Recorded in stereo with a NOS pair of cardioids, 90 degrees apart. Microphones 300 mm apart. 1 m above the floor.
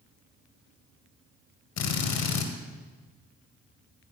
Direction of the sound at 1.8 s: 65° left.